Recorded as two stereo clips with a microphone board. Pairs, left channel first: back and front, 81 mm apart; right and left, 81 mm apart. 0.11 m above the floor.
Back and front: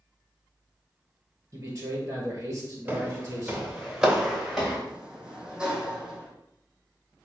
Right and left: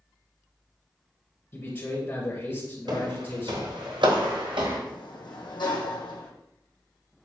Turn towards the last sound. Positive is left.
turn(degrees=-80)